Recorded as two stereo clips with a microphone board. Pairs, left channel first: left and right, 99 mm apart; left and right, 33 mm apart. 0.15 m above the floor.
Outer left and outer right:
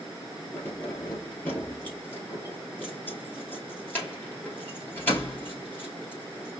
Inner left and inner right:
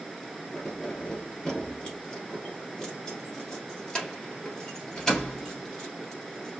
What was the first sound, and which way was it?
Keys jangling, 20° left (ahead or behind).